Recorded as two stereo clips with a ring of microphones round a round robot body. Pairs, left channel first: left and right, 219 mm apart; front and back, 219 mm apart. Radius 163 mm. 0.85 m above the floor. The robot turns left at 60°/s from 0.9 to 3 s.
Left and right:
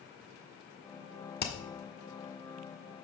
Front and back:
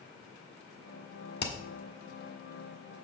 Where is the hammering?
45° left, 1.5 m; by 1.5 s 35° left, 1.5 m.